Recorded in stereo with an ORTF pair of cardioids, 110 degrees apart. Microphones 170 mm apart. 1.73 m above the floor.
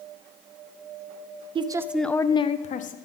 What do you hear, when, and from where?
1.6 s a woman speaking: 30° right, 0.6 m; by 3.0 s 55° left, 0.8 m